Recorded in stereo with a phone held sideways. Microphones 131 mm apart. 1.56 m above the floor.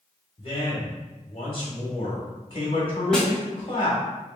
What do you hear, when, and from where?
0.4 s a man speaking: 40° left (ahead or behind), 1.3 m
3.1 s a snare drum: 5° left (ahead or behind), 0.8 m